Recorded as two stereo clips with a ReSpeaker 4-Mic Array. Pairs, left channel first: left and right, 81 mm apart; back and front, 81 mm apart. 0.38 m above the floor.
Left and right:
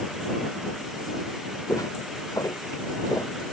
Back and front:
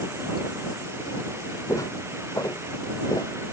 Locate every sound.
1.7 s footsteps: 135° left